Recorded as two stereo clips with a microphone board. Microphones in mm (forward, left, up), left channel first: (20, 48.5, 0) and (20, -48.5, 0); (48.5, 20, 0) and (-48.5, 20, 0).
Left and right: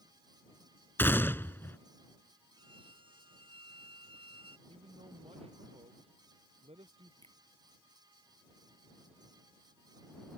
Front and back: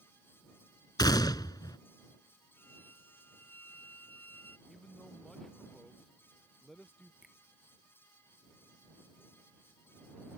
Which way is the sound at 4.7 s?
85° right.